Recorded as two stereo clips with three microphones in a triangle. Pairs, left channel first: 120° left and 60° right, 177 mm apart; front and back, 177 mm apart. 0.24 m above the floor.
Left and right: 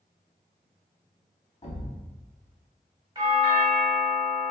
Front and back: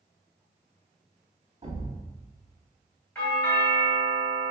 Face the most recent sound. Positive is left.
turn(degrees=-70)